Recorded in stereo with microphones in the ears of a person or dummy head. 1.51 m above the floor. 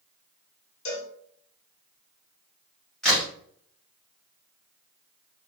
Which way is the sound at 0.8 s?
65° left (ahead or behind).